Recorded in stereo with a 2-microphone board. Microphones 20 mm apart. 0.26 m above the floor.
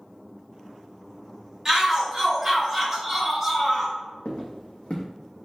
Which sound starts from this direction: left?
Footsteps, at 4.2 s.